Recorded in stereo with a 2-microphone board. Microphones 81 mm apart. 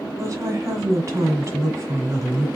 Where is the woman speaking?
40° right (ahead or behind), 1.6 m.